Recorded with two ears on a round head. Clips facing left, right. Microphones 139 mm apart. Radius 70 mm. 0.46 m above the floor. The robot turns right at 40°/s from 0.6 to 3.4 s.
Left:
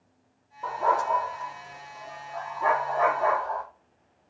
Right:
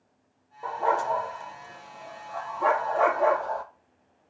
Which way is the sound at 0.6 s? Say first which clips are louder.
Left 1 dB; 15° right (ahead or behind).